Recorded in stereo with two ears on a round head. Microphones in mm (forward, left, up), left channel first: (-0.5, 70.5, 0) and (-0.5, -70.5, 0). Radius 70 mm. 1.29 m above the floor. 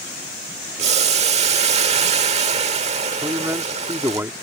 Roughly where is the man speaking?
Centre.